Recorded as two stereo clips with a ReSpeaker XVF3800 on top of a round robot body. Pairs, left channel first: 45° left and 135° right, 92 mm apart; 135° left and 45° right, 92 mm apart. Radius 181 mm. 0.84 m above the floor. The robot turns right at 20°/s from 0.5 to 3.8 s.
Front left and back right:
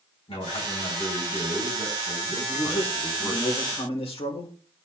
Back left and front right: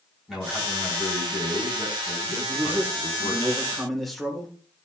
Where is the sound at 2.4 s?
20° left, 4 m; by 4.5 s 45° left, 4 m.